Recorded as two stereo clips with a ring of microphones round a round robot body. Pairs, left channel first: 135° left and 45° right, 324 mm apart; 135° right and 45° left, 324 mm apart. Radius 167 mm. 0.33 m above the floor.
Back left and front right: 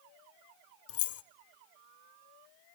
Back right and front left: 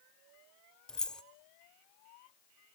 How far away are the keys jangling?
About 0.7 m.